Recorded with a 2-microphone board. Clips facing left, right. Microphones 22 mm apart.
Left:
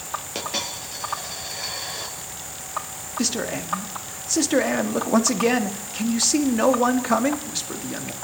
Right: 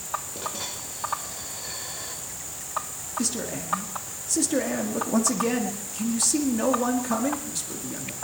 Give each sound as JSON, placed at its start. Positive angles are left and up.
{"t": 0.3, "sound": "a dropped coin", "side_deg": 70, "distance_m": 7.0}
{"t": 3.2, "sound": "a man speaking", "side_deg": 30, "distance_m": 1.8}